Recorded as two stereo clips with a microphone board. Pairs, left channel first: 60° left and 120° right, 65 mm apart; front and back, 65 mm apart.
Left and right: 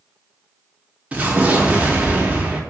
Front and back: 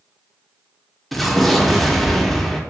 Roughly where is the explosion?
Right.